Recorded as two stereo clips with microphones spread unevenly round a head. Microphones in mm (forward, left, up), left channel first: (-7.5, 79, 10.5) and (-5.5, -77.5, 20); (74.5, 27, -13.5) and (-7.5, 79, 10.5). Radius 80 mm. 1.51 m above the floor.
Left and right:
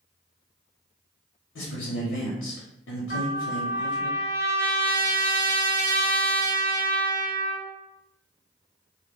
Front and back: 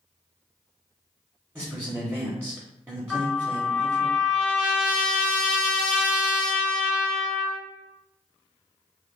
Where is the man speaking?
85° left, 0.8 m.